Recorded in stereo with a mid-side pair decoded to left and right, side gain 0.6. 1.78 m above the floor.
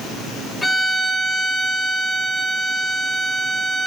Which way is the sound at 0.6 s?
10° left.